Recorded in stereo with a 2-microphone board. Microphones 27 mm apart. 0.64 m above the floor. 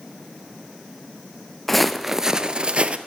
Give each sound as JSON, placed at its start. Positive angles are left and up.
{"t": 1.7, "sound": "footsteps", "side_deg": 10, "distance_m": 0.7}